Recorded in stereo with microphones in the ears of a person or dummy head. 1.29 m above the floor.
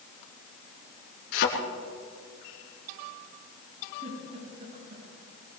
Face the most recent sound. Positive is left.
turn(degrees=-40)  # may be behind; listen again after turning